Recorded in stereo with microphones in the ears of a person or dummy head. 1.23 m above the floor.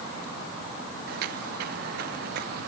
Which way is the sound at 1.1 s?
60° right (ahead or behind).